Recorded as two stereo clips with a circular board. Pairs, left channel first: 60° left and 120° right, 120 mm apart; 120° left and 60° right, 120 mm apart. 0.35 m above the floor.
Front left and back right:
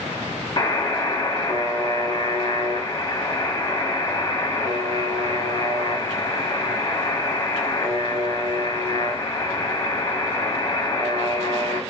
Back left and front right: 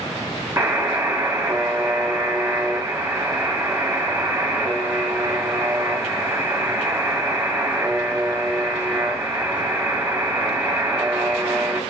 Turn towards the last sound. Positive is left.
turn(degrees=10)